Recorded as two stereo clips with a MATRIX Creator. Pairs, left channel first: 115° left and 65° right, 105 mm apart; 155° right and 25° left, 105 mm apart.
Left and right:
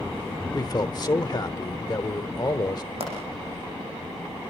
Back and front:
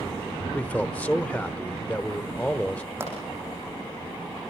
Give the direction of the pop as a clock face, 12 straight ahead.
2 o'clock.